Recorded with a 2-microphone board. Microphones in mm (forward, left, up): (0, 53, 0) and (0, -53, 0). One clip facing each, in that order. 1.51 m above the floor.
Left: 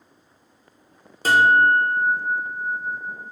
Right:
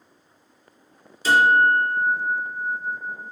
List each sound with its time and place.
1.2 s a guitar: 55° left (ahead or behind), 0.7 m